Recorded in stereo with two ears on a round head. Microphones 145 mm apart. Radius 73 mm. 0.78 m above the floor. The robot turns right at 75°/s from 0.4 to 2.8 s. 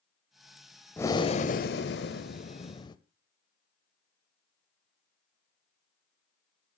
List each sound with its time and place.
1.0 s breathing: 10° left, 1.2 m; by 3.0 s 150° left, 1.2 m